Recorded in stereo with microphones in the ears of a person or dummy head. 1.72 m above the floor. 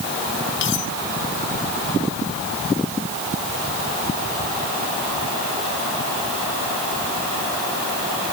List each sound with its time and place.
0.6 s cutlery clinking: 65° left (ahead or behind)